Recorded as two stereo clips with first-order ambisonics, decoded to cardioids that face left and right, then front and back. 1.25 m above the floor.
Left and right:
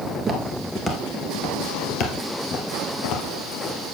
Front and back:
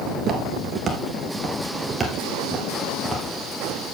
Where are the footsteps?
150° right, 1.4 m; by 3.8 s 85° left, 3 m.